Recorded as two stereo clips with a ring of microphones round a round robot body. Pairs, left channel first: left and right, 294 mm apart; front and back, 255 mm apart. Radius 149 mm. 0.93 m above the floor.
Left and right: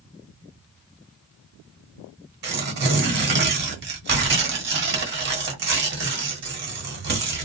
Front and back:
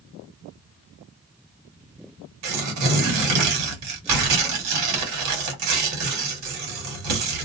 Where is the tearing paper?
145° right, 1.2 m.